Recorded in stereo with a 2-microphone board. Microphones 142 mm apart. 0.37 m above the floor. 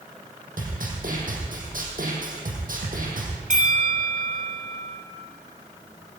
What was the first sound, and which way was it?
A snare drum, 75° right (ahead or behind).